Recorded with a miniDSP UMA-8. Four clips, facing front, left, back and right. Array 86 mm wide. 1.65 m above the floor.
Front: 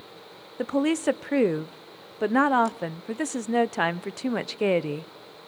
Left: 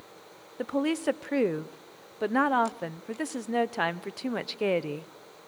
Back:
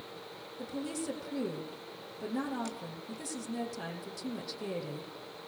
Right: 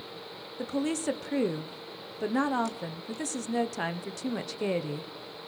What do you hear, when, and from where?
0.6 s a woman speaking: 20° left, 0.8 m